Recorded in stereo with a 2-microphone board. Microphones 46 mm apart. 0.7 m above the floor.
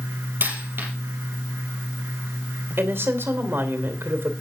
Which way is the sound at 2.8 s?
60° right (ahead or behind).